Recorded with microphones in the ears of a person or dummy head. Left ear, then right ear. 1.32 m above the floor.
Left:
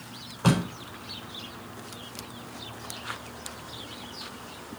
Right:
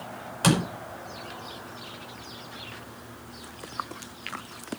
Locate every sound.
0.4 s a door slam: 75° right (ahead or behind), 4.5 m